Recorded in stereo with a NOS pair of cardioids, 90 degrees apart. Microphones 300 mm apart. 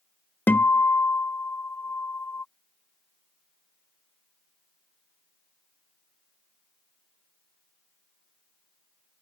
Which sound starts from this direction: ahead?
A guitar, at 0.5 s.